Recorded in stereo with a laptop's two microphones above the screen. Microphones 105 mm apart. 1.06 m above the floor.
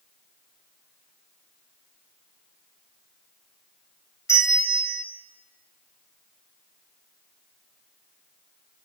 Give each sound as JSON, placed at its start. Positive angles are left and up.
{"t": 4.3, "sound": "a bell", "side_deg": 25, "distance_m": 1.4}